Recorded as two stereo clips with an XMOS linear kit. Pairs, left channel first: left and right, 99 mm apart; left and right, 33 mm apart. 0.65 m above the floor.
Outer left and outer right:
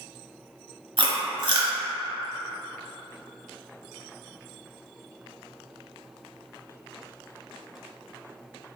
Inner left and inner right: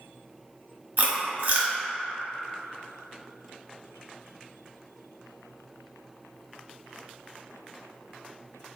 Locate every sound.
1.0 s chewing: 55° right (ahead or behind), 0.9 m